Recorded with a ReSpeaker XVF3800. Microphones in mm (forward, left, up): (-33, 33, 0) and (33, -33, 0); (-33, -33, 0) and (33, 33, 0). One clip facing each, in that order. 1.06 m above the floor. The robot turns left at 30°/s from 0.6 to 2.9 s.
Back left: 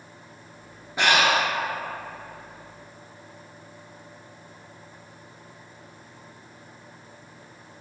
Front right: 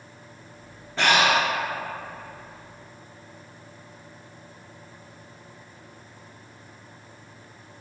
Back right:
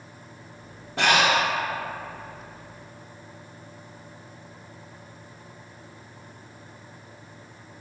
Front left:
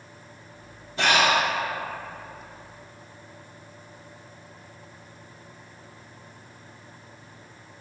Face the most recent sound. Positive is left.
turn(degrees=155)